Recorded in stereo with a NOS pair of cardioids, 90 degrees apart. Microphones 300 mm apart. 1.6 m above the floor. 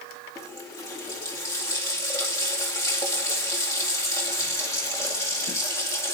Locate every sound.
0.3 s a running tap: 10° left, 2 m